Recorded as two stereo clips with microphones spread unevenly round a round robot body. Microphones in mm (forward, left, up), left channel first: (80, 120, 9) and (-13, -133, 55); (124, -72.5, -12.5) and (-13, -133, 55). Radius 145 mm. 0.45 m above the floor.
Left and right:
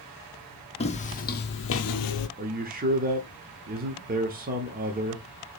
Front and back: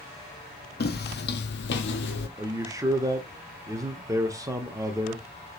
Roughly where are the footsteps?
Ahead.